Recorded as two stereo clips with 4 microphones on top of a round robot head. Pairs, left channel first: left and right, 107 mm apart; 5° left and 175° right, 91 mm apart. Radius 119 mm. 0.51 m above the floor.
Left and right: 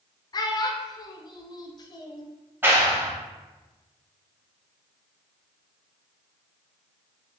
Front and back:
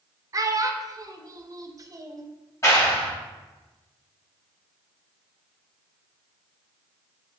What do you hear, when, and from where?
0.3 s a child speaking: 140° left, 0.6 m
2.6 s a clap: 30° right, 1.3 m